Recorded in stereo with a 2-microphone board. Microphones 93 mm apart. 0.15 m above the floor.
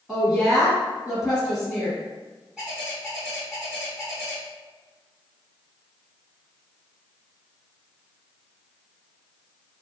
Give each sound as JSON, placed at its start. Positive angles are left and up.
{"t": 0.1, "sound": "a woman speaking", "side_deg": -5, "distance_m": 1.5}
{"t": 2.6, "sound": "a bird", "side_deg": -10, "distance_m": 1.3}